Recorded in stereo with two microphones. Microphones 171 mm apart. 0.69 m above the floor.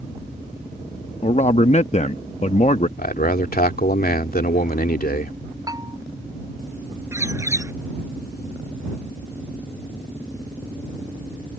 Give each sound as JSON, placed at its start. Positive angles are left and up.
{"t": 1.2, "sound": "a man speaking", "side_deg": 40}
{"t": 3.0, "sound": "a man speaking", "side_deg": 60}
{"t": 5.7, "sound": "a bell", "side_deg": -20}
{"t": 7.1, "sound": "a bird", "side_deg": -15}